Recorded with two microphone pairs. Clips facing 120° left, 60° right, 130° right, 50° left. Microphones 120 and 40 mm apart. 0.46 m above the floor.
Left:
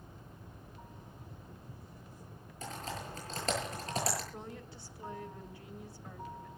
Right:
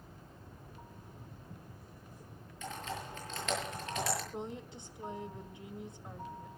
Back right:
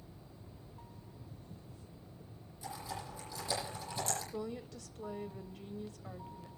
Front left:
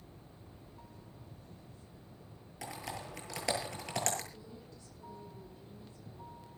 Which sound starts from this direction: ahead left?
Typing on a keyboard, at 2.6 s.